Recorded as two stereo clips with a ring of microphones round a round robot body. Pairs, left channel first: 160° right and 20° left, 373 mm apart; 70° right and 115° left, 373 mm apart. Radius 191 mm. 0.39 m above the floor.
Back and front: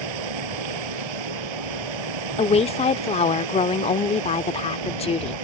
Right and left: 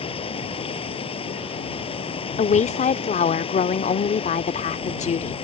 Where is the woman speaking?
110° right.